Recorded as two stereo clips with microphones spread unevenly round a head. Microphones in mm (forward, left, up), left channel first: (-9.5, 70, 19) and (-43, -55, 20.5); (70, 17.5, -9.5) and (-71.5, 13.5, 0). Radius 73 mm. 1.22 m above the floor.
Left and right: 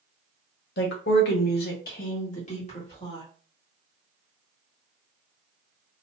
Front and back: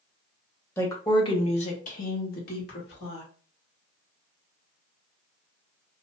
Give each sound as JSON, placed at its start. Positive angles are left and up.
{"t": 0.8, "sound": "a woman speaking", "azimuth_deg": 80, "distance_m": 1.0}